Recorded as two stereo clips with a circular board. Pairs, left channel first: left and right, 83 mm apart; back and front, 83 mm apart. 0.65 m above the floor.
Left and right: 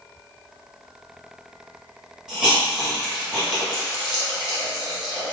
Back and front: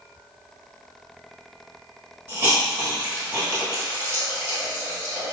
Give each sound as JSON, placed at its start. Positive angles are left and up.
{"t": 2.3, "sound": "a hiss", "azimuth_deg": -20, "distance_m": 1.1}